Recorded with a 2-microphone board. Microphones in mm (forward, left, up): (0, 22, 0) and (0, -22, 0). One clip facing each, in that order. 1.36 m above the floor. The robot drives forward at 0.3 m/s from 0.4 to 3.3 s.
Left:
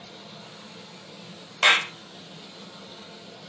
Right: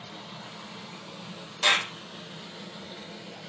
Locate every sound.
0.0 s running water: 45° right (ahead or behind), 1.6 m; by 3.5 s 40° right (ahead or behind), 1.8 m
1.6 s a clap: 60° left (ahead or behind), 0.6 m; by 1.9 s 50° left (ahead or behind), 0.6 m